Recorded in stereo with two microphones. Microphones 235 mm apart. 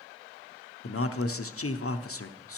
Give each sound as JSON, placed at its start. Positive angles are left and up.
{"t": 0.8, "sound": "a man speaking", "side_deg": 70, "distance_m": 0.6}